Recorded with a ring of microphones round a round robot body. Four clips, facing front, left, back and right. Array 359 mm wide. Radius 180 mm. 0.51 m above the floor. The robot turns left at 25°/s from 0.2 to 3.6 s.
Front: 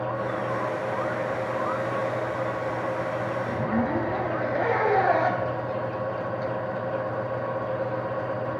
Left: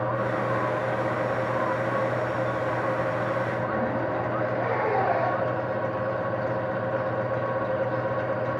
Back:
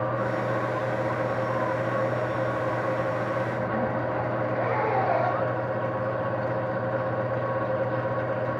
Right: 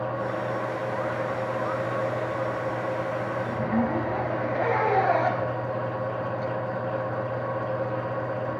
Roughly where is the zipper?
Ahead right.